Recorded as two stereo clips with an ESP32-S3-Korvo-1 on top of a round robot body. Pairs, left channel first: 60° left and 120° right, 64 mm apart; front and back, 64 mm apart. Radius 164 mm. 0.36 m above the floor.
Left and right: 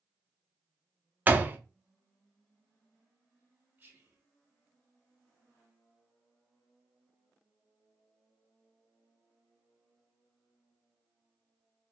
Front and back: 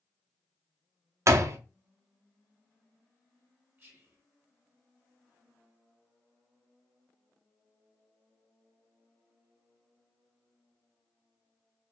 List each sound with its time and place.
1.3 s a door slam: 175° right, 0.6 m
3.8 s whispering: 160° right, 1.5 m